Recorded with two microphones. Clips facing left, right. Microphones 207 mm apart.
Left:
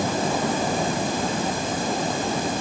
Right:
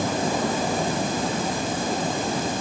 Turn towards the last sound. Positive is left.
No sound to turn to.